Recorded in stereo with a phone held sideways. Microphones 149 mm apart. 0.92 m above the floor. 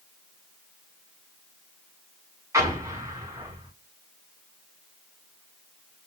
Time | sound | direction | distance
2.5 | an explosion | 20° right (ahead or behind) | 6 m